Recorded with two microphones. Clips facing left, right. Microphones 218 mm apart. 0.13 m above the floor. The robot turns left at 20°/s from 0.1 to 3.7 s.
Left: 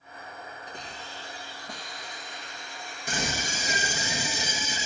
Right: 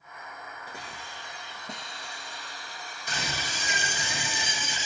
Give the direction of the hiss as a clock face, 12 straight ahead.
12 o'clock.